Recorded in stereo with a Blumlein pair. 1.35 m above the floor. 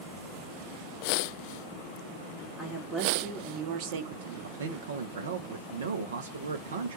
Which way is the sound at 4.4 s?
65° right.